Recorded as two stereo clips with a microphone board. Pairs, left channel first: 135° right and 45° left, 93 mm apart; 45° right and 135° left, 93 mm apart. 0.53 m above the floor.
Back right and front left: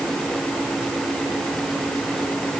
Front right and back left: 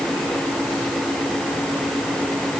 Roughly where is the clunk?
No clunk in this recording.